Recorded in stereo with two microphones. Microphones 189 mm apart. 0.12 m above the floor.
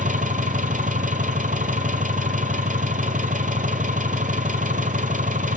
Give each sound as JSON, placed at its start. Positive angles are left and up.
{"t": 0.0, "sound": "an engine running", "side_deg": -45, "distance_m": 0.9}